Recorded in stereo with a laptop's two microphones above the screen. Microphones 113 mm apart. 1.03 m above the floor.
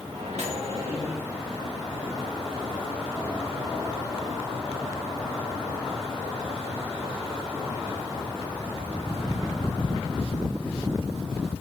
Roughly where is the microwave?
Right.